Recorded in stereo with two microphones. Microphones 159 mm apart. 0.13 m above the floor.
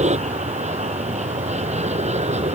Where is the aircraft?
40° right (ahead or behind).